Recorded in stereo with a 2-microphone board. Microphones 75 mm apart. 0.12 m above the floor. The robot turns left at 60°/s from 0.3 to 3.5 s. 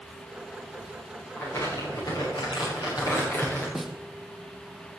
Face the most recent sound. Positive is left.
turn(degrees=0)  # may be behind; listen again after turning